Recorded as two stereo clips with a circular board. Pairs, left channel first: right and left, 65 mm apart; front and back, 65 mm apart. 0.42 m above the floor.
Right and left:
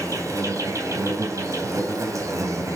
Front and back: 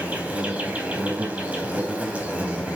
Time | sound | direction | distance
0.0 | an insect | 115° left | 3.5 m